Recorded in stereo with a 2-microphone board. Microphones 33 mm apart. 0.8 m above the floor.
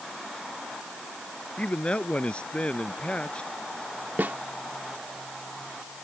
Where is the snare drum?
70° right (ahead or behind).